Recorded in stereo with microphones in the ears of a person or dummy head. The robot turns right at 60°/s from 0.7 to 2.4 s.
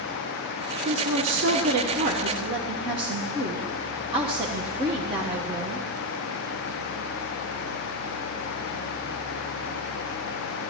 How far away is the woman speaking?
About 0.9 m.